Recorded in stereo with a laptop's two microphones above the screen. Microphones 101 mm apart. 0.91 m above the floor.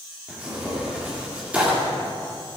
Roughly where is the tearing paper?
Centre.